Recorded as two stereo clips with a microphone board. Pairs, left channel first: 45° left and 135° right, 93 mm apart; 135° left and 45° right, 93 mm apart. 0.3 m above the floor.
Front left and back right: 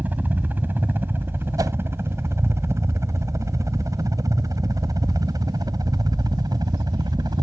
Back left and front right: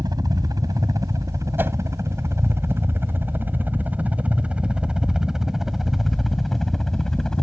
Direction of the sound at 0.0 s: 70° right.